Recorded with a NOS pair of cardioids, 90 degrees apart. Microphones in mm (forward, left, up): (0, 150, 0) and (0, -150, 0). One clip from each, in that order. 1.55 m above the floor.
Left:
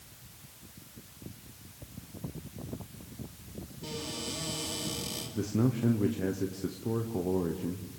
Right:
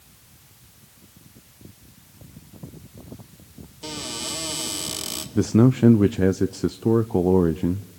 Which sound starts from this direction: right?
A cupboard door, at 3.8 s.